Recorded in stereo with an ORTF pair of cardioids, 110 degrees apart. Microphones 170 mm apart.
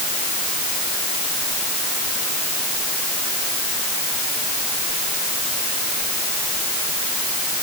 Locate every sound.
Only background noise.